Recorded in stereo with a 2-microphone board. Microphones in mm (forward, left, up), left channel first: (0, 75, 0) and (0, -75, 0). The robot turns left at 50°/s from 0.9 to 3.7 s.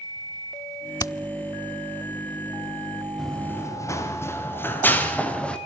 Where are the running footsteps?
Centre (ahead or behind), 5 m; by 5.6 s 5° left (ahead or behind), 4.5 m.